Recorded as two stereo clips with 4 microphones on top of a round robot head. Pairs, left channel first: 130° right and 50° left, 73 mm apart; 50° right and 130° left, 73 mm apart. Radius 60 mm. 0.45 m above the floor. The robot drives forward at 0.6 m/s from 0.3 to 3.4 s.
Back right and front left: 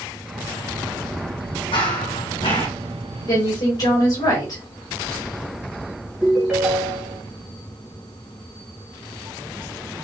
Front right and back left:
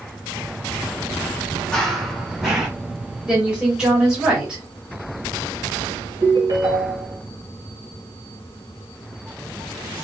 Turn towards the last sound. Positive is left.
turn(degrees=135)